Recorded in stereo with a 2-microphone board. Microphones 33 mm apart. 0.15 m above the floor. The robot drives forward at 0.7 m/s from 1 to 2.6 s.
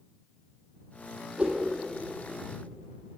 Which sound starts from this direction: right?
A whoosh, at 1.4 s.